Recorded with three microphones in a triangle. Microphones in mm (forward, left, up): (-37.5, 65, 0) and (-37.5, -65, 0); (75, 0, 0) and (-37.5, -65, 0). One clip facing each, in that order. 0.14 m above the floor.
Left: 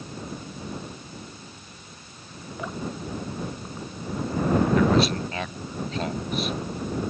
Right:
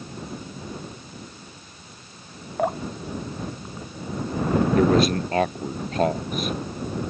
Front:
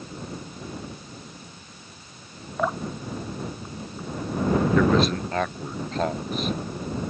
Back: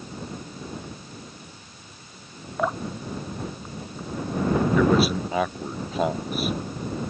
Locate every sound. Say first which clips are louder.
2.6 s dripping: right 7 dB, even; 60° right
4.8 s a man speaking: right 2 dB, back 2 dB; 70° right